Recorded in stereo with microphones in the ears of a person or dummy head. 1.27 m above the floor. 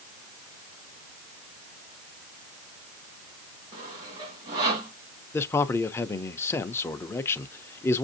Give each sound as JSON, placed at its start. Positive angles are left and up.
{"t": 3.7, "sound": "sawing", "side_deg": -25, "distance_m": 1.8}
{"t": 5.3, "sound": "a man speaking", "side_deg": 15, "distance_m": 0.5}